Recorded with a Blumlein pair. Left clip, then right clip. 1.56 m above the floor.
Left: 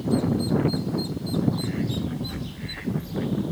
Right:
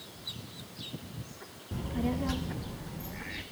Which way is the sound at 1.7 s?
55° right.